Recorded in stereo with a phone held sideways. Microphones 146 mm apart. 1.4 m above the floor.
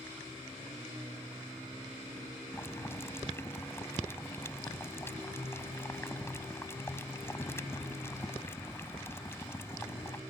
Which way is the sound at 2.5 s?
20° left (ahead or behind).